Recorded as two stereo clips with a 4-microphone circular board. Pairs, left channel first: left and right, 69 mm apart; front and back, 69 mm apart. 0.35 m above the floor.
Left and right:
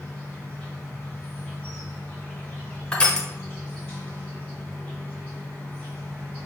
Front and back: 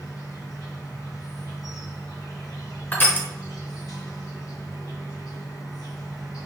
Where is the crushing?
30° left, 0.7 m.